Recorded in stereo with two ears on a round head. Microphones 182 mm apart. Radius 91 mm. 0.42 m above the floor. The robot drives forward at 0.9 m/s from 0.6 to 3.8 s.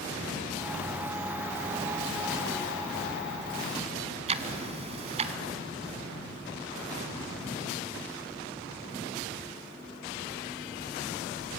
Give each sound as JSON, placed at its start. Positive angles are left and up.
{"t": 4.3, "sound": "ticking", "side_deg": -30, "distance_m": 1.1}